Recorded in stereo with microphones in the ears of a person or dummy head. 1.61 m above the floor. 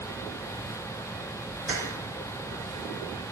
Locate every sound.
1.7 s keys jangling: 60° left (ahead or behind), 1.9 m